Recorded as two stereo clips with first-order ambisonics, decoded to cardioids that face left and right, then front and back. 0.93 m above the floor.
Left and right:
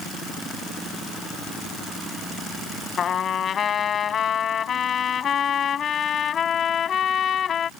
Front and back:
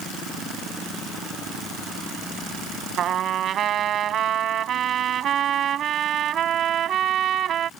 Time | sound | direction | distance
3.0 | a trumpet | 140° left | ?